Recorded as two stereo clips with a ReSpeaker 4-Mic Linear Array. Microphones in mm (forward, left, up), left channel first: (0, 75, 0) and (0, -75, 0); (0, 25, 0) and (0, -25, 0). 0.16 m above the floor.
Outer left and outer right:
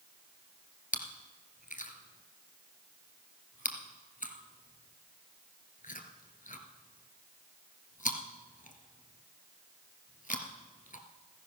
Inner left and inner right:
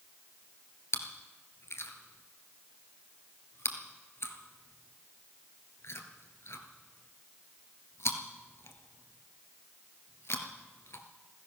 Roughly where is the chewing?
Left.